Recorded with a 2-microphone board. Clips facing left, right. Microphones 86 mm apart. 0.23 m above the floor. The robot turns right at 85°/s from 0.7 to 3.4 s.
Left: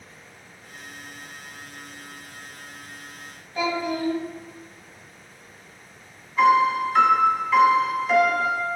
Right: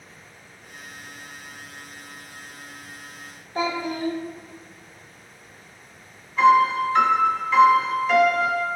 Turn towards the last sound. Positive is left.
turn(degrees=5)  # may be behind; listen again after turning